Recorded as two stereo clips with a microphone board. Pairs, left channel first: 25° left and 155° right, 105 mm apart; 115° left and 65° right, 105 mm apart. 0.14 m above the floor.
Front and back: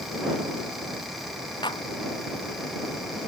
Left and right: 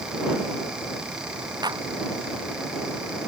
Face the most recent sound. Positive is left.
turn(degrees=-20)